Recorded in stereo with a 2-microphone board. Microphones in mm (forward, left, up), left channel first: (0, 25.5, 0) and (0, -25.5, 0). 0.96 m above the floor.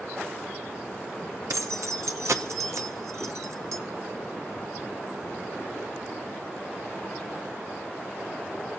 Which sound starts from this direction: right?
Keys jangling, at 1.5 s.